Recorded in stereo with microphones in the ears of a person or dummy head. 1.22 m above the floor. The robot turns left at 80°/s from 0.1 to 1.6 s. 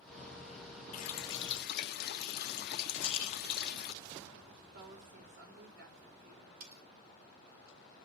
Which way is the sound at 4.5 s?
55° right (ahead or behind).